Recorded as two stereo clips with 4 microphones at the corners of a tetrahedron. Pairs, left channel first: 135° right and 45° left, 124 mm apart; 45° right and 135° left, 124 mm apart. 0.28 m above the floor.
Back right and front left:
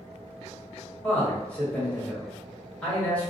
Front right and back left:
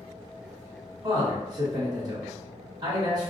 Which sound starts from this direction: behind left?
A man speaking, at 1.0 s.